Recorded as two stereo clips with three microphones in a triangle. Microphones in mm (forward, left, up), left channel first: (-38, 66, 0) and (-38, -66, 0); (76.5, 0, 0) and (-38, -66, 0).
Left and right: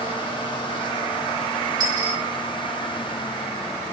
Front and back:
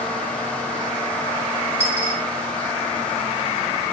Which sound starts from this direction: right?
A dropped coin, at 1.8 s.